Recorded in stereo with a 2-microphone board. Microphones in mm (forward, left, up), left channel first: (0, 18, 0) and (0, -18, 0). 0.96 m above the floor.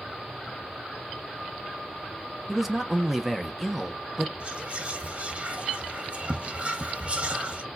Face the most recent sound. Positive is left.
turn(degrees=-35)  # may be behind; listen again after turning